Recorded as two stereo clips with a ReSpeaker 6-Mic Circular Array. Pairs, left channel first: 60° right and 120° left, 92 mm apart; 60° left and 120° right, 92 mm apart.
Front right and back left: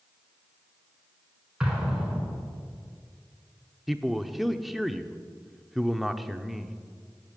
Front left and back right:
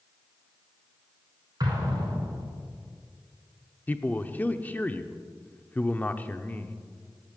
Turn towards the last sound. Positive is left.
turn(degrees=35)